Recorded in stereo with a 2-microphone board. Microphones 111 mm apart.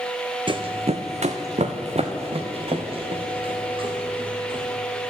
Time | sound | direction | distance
0.5 | running footsteps | 45° right (ahead or behind) | 0.9 m